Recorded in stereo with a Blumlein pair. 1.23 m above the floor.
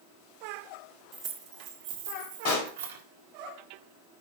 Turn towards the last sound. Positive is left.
turn(degrees=40)